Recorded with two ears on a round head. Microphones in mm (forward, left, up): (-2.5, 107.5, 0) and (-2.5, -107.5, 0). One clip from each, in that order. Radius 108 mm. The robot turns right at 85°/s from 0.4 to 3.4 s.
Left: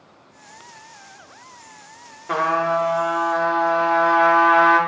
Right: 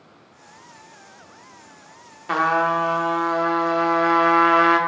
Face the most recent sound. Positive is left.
turn(degrees=-5)  # may be behind; listen again after turning